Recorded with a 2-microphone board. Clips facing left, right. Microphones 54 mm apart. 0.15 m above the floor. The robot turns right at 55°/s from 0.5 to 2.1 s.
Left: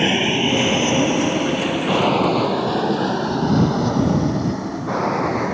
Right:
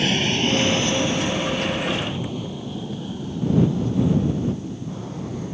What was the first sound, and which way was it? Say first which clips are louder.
An aircraft: left 3 dB; 25° left (ahead or behind).